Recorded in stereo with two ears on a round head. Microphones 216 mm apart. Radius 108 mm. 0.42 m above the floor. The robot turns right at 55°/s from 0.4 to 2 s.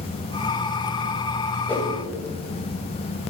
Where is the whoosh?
5° left (ahead or behind), 2.0 m; by 1.9 s 20° left (ahead or behind), 2.0 m.